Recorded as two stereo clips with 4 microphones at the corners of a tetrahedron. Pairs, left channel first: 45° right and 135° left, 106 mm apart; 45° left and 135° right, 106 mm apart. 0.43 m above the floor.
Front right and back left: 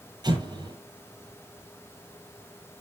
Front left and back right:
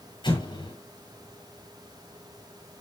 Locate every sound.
0.2 s an explosion: 85° left, 9 m